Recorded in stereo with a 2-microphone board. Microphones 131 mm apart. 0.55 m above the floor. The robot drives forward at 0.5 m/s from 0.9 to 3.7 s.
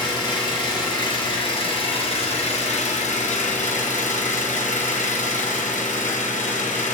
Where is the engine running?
35° left (ahead or behind), 1.8 m; by 6.9 s 65° left (ahead or behind), 1.2 m.